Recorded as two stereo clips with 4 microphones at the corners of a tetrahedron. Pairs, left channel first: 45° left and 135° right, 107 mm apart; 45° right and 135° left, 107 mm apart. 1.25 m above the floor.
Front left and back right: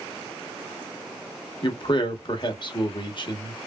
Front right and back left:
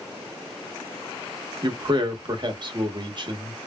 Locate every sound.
1.6 s a man speaking: 90° left, 1.0 m